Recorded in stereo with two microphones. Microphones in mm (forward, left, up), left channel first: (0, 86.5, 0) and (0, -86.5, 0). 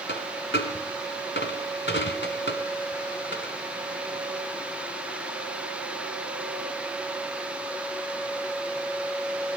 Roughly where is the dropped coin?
Left.